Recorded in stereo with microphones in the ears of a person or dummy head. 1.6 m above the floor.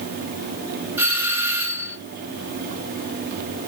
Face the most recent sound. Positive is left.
turn(degrees=-10)  # may be behind; listen again after turning